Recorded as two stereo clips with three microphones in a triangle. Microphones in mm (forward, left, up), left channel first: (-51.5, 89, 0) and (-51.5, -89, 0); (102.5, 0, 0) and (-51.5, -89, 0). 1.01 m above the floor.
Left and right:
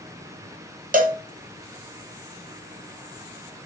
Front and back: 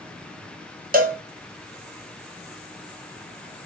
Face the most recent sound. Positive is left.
turn(degrees=-125)